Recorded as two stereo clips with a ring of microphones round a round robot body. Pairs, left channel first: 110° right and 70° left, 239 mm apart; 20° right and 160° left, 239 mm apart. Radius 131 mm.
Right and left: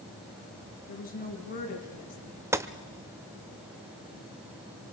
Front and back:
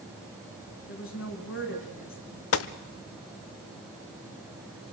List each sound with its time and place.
0.9 s a woman speaking: 55° right, 5 m
2.5 s a gunshot: 10° right, 0.8 m